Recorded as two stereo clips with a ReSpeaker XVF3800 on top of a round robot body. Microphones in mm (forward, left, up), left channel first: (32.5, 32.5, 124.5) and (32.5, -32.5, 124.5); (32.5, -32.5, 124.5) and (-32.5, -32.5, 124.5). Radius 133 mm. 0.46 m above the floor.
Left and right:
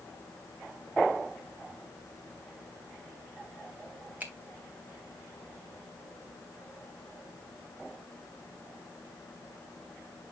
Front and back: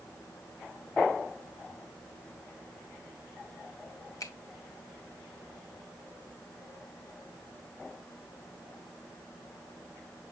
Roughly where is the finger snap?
Ahead right.